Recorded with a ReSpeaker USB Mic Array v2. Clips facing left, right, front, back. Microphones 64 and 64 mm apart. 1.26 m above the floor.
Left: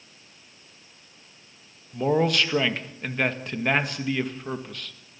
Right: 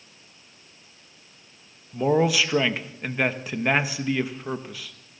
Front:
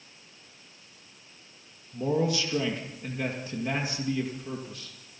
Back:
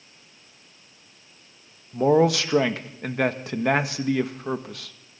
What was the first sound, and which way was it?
A man speaking, 175° right.